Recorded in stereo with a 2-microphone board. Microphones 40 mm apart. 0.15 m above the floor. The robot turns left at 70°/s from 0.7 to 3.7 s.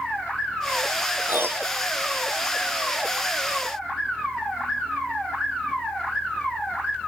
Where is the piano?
55° right; by 1.8 s 90° right.